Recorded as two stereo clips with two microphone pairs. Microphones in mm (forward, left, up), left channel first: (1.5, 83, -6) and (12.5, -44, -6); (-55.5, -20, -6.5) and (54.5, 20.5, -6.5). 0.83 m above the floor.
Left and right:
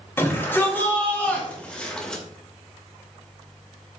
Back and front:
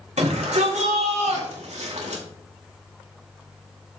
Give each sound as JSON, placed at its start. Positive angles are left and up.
{"t": 0.2, "sound": "a shout", "azimuth_deg": 25, "distance_m": 4.0}